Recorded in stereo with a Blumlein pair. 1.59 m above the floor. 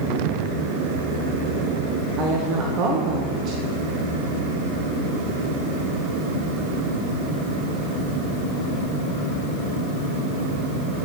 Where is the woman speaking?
35° right, 1.2 m.